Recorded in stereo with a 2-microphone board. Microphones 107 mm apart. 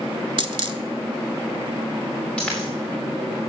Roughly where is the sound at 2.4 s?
Centre.